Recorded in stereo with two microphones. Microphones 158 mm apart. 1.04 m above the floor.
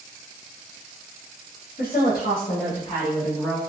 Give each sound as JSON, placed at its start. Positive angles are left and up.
{"t": 1.8, "sound": "a woman speaking", "side_deg": 85, "distance_m": 1.4}